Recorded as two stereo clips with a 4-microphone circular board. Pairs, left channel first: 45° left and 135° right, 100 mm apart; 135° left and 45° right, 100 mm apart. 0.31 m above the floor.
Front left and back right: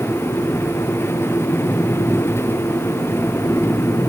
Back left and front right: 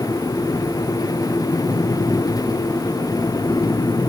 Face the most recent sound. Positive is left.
No sound to turn to.